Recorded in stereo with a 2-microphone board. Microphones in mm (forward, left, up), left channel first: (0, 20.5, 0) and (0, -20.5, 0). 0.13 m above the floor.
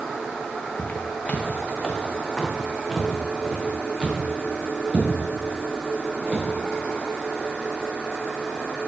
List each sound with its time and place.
0.8 s footsteps: 45° left (ahead or behind), 1.4 m; by 6.5 s 30° right (ahead or behind), 3.5 m